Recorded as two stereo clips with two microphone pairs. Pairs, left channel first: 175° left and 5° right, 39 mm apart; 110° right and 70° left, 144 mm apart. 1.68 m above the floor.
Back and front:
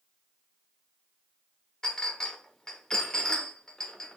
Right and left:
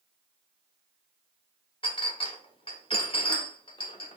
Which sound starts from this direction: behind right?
A clink, at 1.8 s.